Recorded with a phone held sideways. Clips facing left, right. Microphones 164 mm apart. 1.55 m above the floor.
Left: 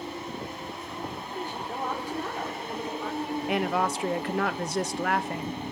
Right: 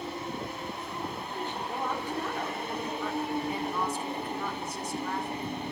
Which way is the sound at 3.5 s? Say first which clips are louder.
Left 5 dB; 80° left.